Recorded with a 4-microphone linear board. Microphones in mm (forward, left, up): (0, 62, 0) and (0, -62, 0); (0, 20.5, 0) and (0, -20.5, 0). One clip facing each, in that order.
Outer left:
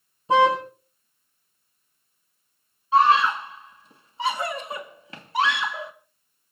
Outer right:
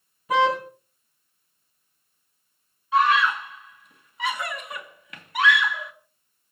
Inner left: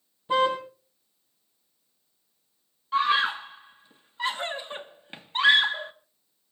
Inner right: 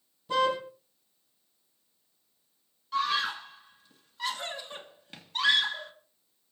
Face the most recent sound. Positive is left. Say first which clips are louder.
# outer left 2 dB, inner left 6 dB
turn(degrees=30)  # may be behind; listen again after turning